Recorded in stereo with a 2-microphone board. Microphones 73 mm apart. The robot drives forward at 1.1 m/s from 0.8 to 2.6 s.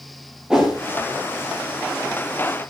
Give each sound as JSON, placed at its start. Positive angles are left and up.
{"t": 0.5, "sound": "a whoosh", "side_deg": -5, "distance_m": 5.0}